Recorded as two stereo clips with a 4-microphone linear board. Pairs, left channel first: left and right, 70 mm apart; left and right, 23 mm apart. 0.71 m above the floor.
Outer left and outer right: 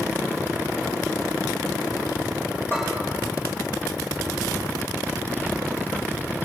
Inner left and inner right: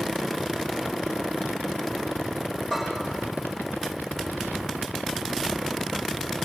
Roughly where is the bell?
Left.